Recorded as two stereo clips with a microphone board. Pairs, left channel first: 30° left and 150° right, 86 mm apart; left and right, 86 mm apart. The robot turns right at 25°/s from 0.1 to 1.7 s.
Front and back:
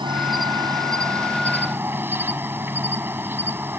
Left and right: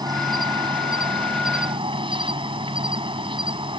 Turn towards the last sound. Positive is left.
turn(degrees=-85)